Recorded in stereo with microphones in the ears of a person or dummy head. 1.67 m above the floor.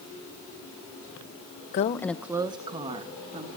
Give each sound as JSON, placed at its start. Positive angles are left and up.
{"t": 1.7, "sound": "a woman speaking", "side_deg": 40, "distance_m": 0.5}